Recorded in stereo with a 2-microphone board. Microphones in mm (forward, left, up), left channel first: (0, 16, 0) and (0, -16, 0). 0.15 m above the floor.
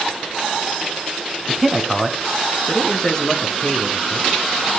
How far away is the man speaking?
About 1.2 m.